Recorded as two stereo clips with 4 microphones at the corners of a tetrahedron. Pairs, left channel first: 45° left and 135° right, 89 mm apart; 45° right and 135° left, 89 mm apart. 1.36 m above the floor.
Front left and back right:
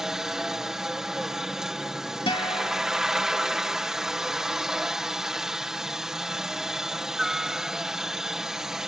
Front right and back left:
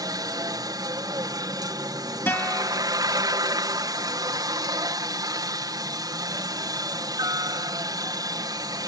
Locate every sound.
0.0 s a helicopter: 145° left
2.3 s a guitar: 20° left